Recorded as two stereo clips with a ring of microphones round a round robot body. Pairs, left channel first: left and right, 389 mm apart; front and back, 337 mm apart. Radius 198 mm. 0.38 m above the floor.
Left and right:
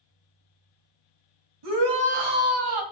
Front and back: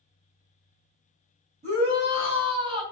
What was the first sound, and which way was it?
A shout, 110° right.